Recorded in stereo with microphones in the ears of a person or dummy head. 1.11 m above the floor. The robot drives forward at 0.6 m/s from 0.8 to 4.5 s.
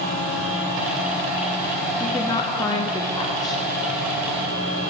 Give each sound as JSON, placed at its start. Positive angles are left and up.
{"t": 2.0, "sound": "a woman speaking", "side_deg": 15, "distance_m": 0.6}